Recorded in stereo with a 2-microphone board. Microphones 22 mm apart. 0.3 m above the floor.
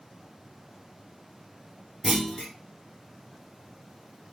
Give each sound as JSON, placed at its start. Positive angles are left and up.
{"t": 2.0, "sound": "a clunk", "side_deg": 20, "distance_m": 2.0}